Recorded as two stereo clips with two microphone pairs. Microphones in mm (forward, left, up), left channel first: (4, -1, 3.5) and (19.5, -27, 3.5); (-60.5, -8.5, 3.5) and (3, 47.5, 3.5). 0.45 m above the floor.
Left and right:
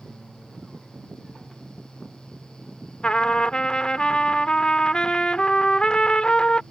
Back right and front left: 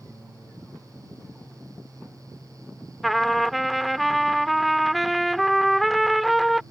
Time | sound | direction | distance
3.0 | a trumpet | 130° left | ?